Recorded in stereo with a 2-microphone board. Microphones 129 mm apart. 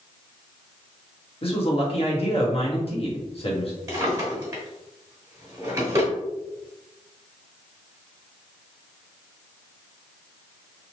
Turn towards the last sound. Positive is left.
turn(degrees=-25)  # may be behind; listen again after turning